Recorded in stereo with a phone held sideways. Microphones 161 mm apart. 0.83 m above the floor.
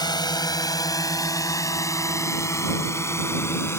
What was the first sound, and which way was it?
A drone, 25° left (ahead or behind).